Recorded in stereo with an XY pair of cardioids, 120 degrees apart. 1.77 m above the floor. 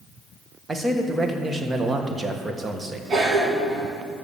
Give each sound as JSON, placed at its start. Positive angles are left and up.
{"t": 0.7, "sound": "a man speaking", "azimuth_deg": -25, "distance_m": 1.6}
{"t": 3.1, "sound": "a cough", "azimuth_deg": -45, "distance_m": 4.0}